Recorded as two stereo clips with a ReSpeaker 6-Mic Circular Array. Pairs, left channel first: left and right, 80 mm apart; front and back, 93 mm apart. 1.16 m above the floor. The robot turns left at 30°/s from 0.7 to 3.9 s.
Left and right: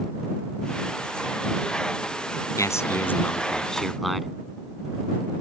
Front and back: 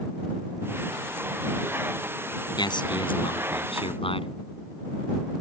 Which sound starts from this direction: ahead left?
A man speaking, at 2.6 s.